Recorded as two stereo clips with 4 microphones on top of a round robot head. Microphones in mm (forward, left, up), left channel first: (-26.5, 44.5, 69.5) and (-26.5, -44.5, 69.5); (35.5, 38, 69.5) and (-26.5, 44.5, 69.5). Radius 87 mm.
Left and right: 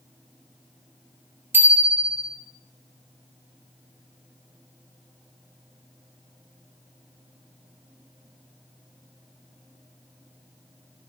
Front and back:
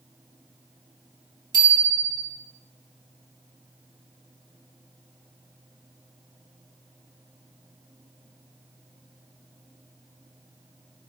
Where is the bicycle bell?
155° right, 3 m.